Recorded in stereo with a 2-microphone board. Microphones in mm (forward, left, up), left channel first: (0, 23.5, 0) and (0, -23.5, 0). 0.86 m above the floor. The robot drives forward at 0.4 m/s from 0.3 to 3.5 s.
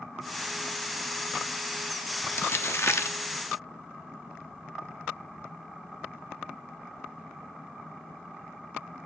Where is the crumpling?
50° left (ahead or behind), 0.9 m; by 3.2 s 75° left (ahead or behind), 0.7 m.